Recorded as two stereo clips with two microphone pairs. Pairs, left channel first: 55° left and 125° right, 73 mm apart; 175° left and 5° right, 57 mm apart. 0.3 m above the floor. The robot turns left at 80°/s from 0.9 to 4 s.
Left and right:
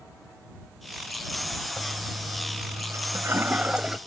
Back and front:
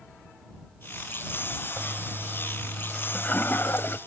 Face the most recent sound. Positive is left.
turn(degrees=155)